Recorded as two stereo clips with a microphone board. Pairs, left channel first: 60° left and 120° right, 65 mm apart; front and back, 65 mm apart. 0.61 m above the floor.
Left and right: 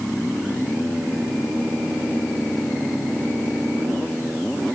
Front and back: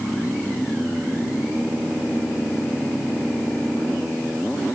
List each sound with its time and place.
Only background noise.